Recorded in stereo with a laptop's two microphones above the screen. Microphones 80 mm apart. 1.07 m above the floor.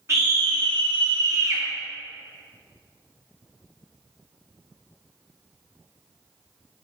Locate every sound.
0.1 s a scream: 40° right (ahead or behind), 1.3 m; by 1.6 s 30° right (ahead or behind), 1.3 m